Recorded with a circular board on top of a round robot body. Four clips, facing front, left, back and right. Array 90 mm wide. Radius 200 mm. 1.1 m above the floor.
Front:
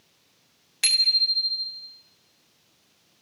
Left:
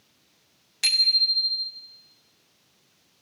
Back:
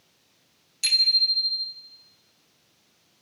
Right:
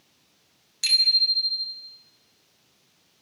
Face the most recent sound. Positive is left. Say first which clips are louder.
# even, even
turn(degrees=25)